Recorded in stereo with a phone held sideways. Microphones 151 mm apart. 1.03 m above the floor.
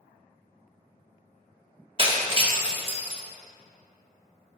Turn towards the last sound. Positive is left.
turn(degrees=-35)  # may be behind; listen again after turning